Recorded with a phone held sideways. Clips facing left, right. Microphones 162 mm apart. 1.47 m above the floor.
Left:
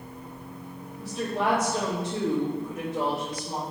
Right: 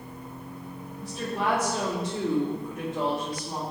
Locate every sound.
1.0 s a woman speaking: 65° left (ahead or behind), 1.2 m; by 3.6 s 30° left (ahead or behind), 2 m